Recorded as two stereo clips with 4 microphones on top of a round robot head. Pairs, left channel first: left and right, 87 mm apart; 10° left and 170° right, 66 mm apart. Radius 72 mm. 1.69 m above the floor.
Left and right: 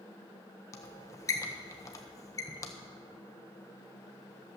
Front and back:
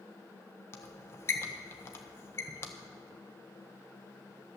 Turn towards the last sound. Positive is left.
turn(degrees=45)